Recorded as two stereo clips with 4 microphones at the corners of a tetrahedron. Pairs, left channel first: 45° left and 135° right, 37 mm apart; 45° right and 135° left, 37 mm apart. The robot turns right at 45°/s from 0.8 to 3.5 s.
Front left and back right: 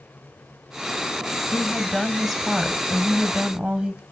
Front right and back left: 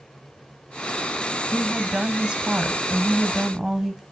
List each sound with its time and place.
1.5 s a woman speaking: 105° left, 1.0 m; by 4.0 s 165° right, 1.0 m